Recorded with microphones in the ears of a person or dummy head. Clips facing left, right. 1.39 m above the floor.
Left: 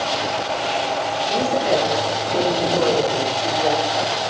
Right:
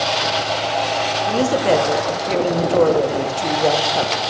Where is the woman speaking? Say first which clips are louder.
Right 4 dB; 60° right (ahead or behind), 1.0 m.